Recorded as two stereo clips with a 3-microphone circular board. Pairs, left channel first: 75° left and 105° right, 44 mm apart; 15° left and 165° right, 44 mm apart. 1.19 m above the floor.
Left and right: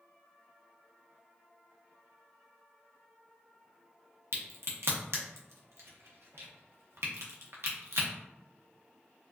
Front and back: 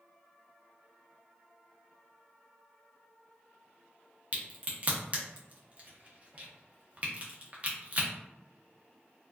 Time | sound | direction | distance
4.3 | a crack | 110° right | 0.6 m